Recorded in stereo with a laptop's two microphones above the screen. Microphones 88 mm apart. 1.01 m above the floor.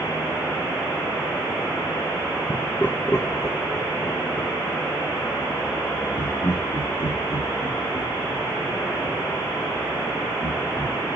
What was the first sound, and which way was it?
Laughter, 5° left (ahead or behind).